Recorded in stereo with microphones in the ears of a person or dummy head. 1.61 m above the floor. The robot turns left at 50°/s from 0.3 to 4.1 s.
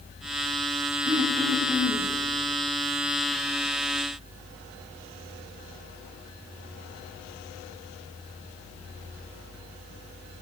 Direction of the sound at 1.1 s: 145° right.